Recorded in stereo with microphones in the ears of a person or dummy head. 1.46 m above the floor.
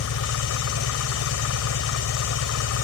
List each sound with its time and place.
0.0 s an engine running: 80° left